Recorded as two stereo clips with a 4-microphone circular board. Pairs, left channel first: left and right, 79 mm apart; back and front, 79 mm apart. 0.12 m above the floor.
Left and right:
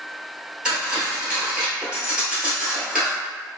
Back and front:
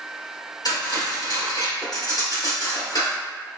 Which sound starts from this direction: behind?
Cutlery clinking, at 0.7 s.